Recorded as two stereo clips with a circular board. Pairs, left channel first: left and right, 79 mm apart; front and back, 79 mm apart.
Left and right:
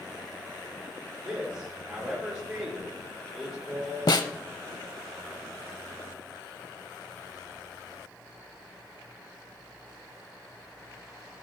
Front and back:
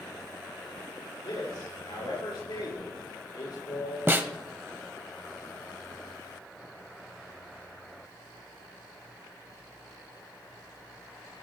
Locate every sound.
1.2 s a man speaking: 10° right, 6 m
4.1 s a snare drum: 115° left, 0.6 m